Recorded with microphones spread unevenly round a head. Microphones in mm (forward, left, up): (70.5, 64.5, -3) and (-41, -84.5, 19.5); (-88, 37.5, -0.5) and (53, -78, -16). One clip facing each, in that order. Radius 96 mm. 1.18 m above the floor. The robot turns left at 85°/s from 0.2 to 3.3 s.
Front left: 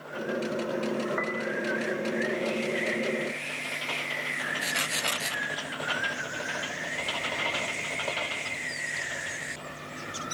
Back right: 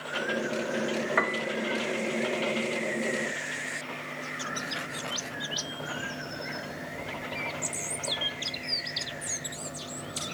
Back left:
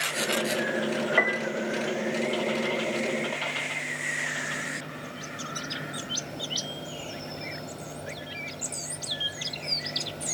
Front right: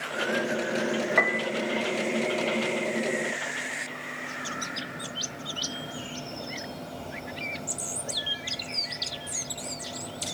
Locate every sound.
1.2 s a piano: 130° right, 2 m; by 1.5 s 160° right, 2 m